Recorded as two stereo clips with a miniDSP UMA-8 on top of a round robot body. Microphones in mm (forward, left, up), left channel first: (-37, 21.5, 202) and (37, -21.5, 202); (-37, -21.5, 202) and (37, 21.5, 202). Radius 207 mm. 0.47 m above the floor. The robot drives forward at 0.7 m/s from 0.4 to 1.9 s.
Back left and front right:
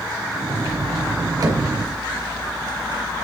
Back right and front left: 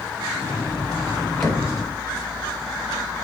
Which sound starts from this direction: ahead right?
Knocking, at 1.4 s.